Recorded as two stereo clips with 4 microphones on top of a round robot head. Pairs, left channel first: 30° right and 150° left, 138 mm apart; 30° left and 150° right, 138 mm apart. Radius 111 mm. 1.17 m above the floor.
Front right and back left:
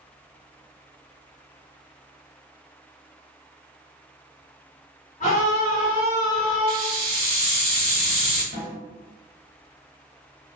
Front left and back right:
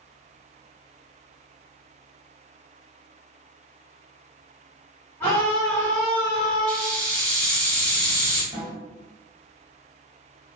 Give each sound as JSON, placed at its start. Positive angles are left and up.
{"t": 5.2, "sound": "a scream", "azimuth_deg": -40, "distance_m": 1.3}
{"t": 6.7, "sound": "a hiss", "azimuth_deg": -45, "distance_m": 1.5}
{"t": 8.5, "sound": "a snare drum", "azimuth_deg": 160, "distance_m": 0.8}